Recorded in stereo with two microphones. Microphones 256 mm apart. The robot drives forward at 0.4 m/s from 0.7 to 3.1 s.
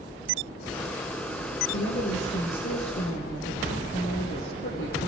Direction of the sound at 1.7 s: 55° left (ahead or behind).